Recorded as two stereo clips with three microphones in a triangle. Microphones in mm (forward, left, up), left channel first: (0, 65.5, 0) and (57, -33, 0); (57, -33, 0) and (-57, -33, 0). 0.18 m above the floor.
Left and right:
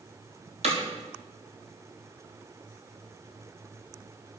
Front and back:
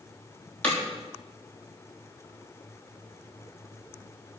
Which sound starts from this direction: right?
Hammering, at 0.6 s.